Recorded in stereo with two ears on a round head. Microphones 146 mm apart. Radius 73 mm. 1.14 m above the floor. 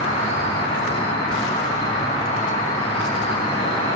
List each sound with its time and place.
0.0 s an insect: 35° left (ahead or behind), 2.5 m